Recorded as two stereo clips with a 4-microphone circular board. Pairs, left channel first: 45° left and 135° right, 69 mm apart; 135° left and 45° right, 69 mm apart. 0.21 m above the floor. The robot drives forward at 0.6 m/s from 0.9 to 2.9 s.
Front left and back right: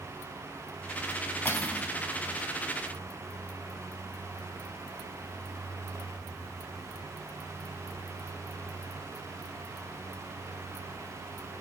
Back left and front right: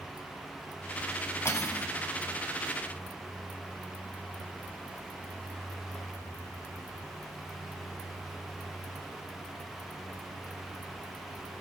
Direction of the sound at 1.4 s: 95° left.